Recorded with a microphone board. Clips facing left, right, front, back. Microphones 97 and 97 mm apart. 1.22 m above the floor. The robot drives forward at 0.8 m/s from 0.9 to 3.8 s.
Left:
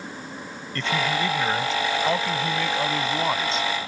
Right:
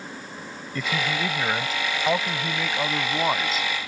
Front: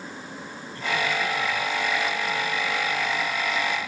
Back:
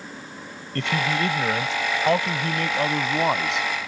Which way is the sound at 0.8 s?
170° right.